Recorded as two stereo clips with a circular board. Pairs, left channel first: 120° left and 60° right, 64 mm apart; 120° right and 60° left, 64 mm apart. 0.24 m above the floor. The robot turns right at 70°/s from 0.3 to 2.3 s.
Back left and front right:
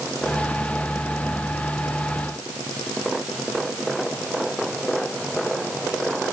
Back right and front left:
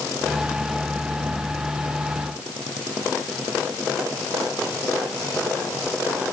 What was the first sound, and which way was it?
Only background noise.